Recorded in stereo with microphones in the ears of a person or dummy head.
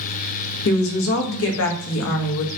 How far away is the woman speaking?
About 0.6 m.